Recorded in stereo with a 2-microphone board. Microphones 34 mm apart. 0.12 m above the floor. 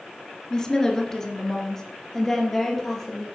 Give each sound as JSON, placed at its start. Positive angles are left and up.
{"t": 0.5, "sound": "a woman speaking", "side_deg": 20, "distance_m": 1.5}